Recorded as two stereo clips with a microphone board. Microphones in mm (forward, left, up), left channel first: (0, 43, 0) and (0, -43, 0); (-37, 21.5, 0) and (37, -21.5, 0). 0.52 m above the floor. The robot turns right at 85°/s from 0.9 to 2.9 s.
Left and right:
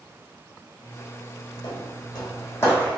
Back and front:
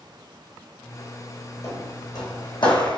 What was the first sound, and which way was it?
Footsteps, 95° left.